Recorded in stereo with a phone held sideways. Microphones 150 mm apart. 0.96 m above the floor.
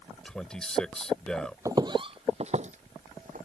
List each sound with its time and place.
0.2 s a man speaking: 5° left (ahead or behind)
1.6 s footsteps: 20° right (ahead or behind); by 3.5 s 65° right (ahead or behind)